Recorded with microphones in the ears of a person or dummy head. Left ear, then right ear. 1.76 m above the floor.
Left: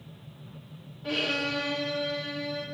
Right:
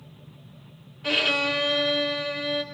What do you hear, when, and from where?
1.0 s a violin: 40° right (ahead or behind), 1.5 m